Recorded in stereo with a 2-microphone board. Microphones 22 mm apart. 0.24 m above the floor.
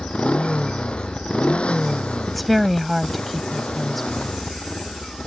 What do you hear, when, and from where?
0.0 s a motorcycle: 60° left (ahead or behind)
2.3 s a woman speaking: 5° left (ahead or behind)